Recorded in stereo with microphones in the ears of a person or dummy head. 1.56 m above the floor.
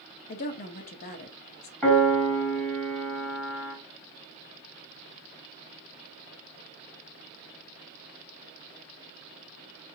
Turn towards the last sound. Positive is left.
turn(degrees=0)  # may be behind; listen again after turning